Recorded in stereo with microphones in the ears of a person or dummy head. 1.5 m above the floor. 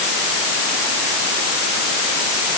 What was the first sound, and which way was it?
Only background noise.